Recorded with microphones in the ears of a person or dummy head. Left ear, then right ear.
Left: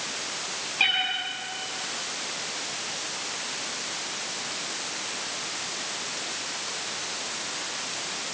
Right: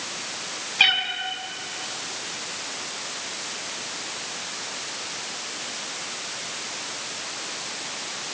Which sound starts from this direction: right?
A cat meowing, at 0.8 s.